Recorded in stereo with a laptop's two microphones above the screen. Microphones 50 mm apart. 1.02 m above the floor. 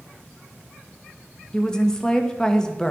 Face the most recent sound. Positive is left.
turn(degrees=15)  # may be behind; listen again after turning